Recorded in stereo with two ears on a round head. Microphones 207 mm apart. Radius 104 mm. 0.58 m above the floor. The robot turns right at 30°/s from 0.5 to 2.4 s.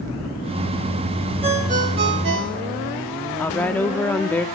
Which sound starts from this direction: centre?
A woman speaking, at 3.4 s.